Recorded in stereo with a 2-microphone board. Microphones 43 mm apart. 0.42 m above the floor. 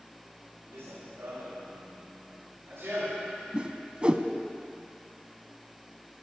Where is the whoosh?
25° right (ahead or behind), 0.6 m.